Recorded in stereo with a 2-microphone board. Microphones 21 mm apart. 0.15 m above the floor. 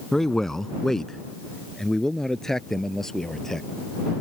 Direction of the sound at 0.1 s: 20° left (ahead or behind).